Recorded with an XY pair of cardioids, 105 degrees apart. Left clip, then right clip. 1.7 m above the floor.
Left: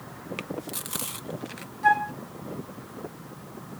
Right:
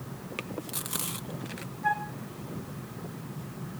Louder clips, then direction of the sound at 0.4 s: Left 1 dB; 10° left.